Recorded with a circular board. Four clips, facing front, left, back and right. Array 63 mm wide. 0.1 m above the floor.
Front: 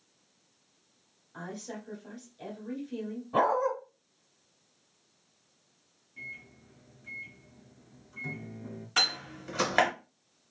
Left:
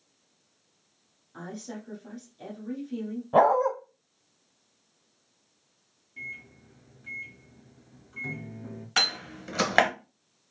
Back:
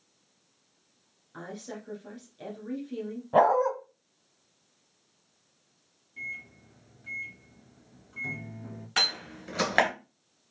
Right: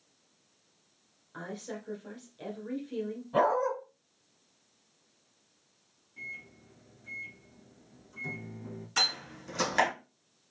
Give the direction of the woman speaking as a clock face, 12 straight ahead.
4 o'clock.